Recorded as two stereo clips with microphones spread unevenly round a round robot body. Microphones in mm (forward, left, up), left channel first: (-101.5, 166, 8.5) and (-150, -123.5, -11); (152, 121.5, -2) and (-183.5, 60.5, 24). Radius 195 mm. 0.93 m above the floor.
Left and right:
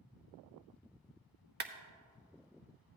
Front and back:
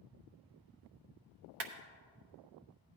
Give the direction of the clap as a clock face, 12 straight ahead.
5 o'clock.